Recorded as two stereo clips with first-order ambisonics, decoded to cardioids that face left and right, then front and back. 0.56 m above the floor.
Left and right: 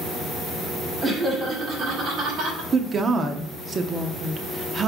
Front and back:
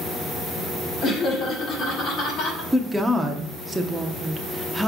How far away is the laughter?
About 1.4 m.